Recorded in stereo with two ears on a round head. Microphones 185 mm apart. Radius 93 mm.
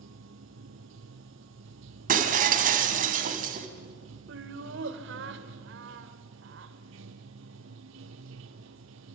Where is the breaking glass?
45° right (ahead or behind), 2.5 m.